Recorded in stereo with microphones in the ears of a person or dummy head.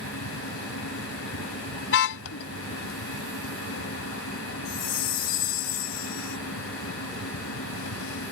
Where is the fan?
85° left.